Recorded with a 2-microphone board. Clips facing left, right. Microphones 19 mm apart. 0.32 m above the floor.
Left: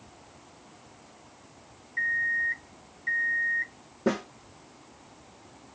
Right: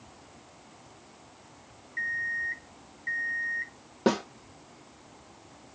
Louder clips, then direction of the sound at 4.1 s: Right 2 dB; 60° right (ahead or behind).